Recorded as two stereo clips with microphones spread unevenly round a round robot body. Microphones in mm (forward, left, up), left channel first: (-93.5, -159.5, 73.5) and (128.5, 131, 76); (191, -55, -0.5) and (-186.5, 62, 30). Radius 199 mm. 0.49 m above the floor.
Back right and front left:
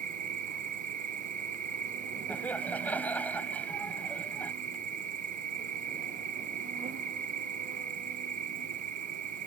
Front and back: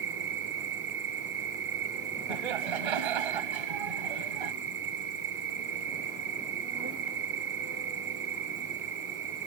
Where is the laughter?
145° left.